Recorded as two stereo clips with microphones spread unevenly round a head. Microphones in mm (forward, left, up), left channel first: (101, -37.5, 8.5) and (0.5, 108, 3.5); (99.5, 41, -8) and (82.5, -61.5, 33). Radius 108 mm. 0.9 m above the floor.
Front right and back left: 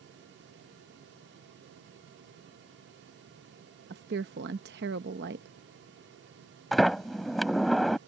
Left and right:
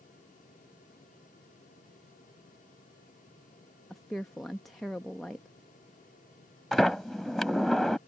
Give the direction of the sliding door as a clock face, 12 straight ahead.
5 o'clock.